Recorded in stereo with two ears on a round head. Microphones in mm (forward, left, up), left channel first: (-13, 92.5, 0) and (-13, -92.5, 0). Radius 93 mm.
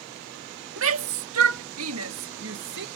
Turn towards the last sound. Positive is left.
turn(degrees=-55)  # may be behind; listen again after turning